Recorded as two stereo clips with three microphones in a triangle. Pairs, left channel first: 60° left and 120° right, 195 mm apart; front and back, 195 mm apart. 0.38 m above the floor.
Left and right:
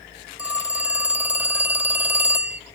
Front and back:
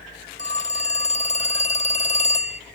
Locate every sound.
0.4 s a phone ringing: 40° right, 0.6 m